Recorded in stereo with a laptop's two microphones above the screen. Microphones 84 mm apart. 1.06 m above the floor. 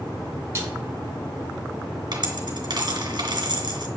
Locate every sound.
0.6 s a snare drum: 30° right (ahead or behind), 8.5 m
2.1 s a dropped coin: 60° right (ahead or behind), 3 m